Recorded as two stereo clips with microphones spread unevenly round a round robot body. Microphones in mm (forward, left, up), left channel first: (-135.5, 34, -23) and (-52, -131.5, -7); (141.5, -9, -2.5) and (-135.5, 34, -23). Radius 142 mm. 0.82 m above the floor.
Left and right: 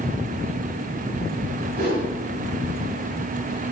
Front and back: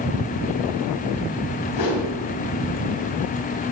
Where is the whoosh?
10° right, 1.9 m.